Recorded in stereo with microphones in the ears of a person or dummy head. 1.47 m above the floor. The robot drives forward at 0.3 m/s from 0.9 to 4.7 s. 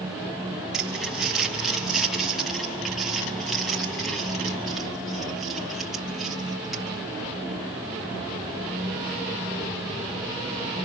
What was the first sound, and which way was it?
Crumpling, 5° right (ahead or behind).